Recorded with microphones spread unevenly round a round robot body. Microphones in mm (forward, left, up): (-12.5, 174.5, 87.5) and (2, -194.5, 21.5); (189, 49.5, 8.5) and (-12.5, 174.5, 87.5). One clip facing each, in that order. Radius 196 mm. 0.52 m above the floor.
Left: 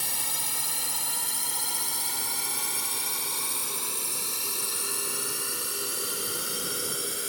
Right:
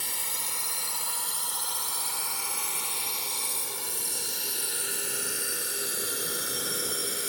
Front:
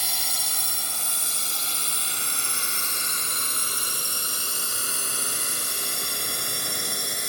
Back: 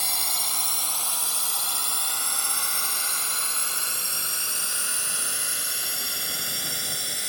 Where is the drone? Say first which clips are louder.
Left 2 dB, back 1 dB; 50° left; by 7.3 s straight ahead.